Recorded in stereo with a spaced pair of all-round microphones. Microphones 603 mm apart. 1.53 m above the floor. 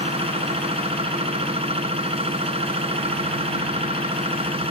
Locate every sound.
0.0 s a machine running: 10° right (ahead or behind)